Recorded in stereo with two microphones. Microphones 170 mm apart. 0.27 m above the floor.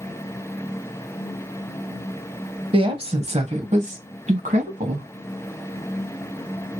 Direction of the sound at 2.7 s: 30° right (ahead or behind).